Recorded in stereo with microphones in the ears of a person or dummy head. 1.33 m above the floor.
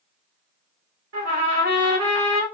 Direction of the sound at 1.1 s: 80° right.